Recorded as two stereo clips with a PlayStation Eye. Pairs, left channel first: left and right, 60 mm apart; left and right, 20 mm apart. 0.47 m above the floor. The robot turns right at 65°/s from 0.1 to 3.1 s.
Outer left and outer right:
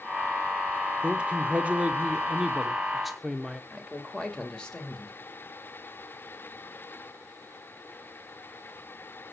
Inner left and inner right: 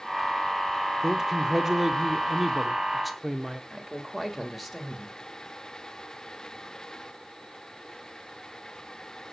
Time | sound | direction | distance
1.0 | a man speaking | 15° right (ahead or behind) | 0.9 m
3.7 | a man speaking | 15° left (ahead or behind) | 2 m